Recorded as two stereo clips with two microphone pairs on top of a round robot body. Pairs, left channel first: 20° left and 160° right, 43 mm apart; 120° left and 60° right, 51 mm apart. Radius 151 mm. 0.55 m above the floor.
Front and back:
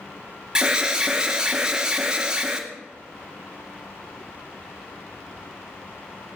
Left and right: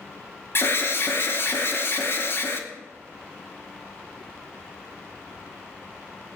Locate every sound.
0.6 s an alarm: 140° left, 2.5 m